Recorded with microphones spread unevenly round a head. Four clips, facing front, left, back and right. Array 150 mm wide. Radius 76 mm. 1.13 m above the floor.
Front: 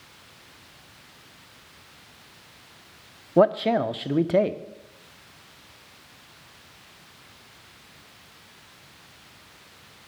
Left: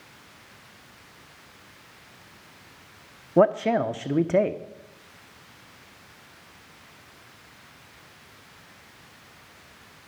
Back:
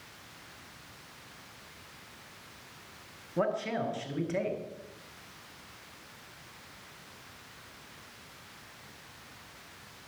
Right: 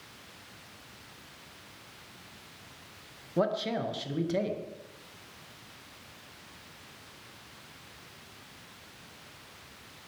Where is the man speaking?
35° left, 0.7 m.